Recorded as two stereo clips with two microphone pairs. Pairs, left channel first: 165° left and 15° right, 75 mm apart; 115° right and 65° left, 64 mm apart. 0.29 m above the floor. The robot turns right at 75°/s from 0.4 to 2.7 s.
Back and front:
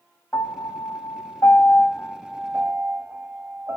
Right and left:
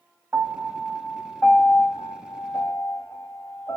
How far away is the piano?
About 2 m.